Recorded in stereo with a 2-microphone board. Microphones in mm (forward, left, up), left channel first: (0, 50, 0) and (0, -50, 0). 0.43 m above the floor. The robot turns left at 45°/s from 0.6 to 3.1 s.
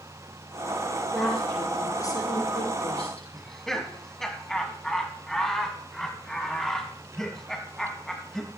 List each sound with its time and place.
1.1 s a woman speaking: 175° right, 6 m; by 3.2 s 95° left, 6 m
3.3 s laughter: 5° left (ahead or behind), 3 m